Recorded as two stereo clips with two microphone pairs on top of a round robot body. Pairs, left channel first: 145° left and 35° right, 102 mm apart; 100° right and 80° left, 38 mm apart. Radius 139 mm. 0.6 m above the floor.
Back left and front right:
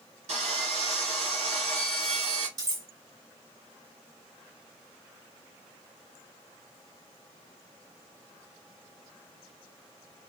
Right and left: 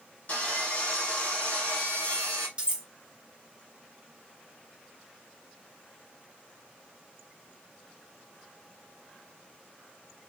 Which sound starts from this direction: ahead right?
Sawing, at 0.3 s.